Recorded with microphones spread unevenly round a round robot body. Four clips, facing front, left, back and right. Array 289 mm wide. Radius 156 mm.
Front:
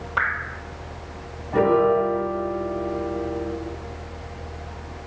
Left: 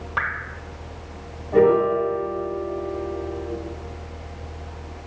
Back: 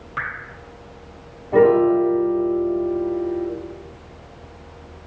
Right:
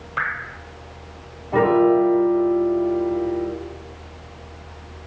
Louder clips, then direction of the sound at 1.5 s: Right 1 dB, back 4 dB; 175° right.